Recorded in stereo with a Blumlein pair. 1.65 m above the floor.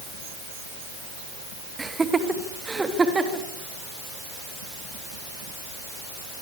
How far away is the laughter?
About 2.5 m.